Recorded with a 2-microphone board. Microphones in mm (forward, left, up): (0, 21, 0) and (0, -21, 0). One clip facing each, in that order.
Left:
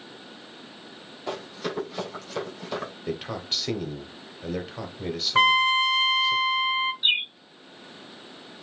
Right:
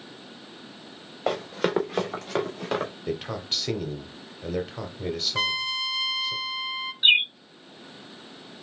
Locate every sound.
1.3 s running footsteps: 80° right, 2 m; by 2.9 s 65° right (ahead or behind), 3 m
3.1 s a man speaking: centre (ahead or behind), 1.1 m
5.3 s a trumpet: 35° left (ahead or behind), 0.5 m
7.0 s a bird: 40° right (ahead or behind), 0.5 m